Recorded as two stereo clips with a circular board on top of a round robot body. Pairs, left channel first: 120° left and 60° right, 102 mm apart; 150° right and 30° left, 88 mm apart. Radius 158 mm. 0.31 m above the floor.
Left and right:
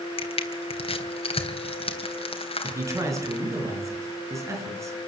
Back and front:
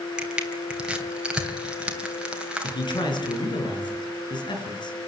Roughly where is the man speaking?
Behind right.